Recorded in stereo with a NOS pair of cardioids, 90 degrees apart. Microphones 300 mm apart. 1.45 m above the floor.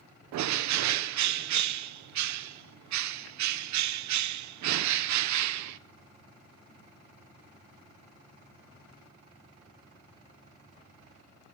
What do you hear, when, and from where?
0.3 s a bird: 70° right, 0.8 m